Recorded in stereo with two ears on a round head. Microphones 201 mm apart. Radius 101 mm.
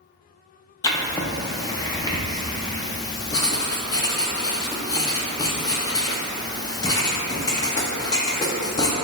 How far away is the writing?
About 0.6 m.